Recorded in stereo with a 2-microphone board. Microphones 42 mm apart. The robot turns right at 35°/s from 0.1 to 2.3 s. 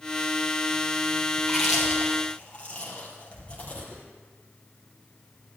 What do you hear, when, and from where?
1.4 s chewing: 5° right (ahead or behind), 4.5 m; by 4.0 s 30° left (ahead or behind), 4.5 m